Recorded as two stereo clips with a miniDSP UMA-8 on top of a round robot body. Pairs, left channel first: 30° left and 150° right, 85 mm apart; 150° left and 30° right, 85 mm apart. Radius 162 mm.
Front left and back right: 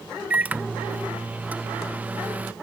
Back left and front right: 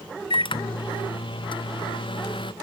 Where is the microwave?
140° left.